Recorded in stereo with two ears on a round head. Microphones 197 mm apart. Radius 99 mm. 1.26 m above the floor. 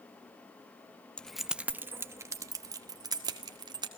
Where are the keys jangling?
5° left (ahead or behind), 0.6 m; by 3.9 s 20° right (ahead or behind), 2 m.